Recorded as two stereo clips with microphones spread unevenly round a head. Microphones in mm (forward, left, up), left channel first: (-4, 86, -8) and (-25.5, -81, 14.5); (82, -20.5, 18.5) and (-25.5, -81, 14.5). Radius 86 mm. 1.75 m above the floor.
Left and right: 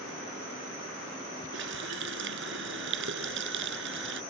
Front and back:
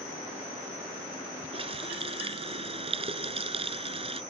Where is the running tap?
110° right.